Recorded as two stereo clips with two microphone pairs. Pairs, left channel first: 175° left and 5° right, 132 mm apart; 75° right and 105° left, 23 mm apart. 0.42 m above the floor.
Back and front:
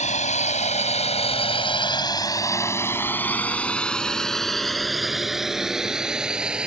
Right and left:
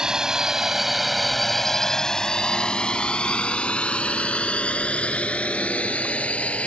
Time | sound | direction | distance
0.0 | a drone | 165° left | ?